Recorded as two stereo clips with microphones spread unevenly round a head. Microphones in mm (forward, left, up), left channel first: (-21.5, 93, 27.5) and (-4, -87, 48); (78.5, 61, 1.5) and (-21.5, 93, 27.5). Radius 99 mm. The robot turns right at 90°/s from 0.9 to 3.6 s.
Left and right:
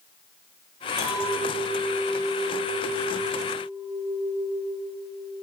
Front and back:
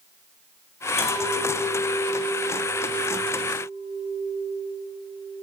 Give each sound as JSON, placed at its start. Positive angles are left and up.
{"t": 1.0, "sound": "a clink", "azimuth_deg": -15, "distance_m": 5.0}